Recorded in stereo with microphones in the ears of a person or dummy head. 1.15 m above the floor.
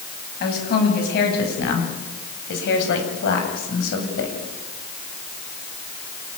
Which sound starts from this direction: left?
A woman speaking, at 0.4 s.